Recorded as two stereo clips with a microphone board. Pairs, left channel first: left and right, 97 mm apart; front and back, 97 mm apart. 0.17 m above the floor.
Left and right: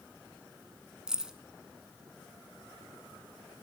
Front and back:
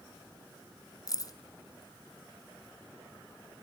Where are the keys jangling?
10° right, 1.3 m.